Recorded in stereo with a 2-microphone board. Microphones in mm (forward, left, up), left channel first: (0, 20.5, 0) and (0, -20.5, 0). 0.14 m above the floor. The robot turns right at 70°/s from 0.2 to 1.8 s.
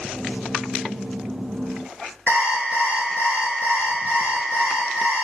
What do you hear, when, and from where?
2.3 s an alarm clock: 35° right (ahead or behind), 1.3 m